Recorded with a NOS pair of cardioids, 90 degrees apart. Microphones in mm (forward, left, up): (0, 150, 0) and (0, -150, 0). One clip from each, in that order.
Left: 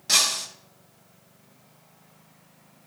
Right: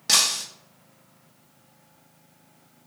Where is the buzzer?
No buzzer in this recording.